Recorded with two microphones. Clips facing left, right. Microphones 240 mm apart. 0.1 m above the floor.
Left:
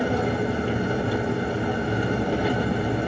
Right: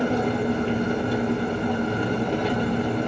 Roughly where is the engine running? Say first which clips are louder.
Right 1 dB; centre.